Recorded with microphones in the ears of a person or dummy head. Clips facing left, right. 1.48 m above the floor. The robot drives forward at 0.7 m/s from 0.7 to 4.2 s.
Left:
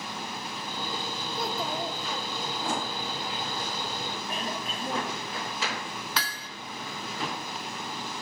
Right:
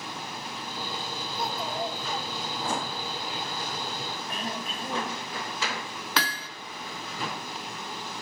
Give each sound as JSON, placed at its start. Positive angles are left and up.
{"t": 1.4, "sound": "a child speaking", "side_deg": 65, "distance_m": 2.5}
{"t": 4.3, "sound": "throat clearing", "side_deg": 65, "distance_m": 7.5}
{"t": 6.2, "sound": "hammering", "side_deg": -55, "distance_m": 0.5}